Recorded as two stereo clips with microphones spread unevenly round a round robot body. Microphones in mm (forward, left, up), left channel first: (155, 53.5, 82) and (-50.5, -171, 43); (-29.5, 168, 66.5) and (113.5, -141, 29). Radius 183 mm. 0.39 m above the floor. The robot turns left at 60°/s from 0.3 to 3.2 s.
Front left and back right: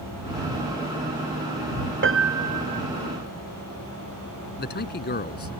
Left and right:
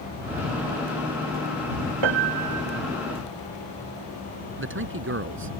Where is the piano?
80° right; by 2.9 s 130° right.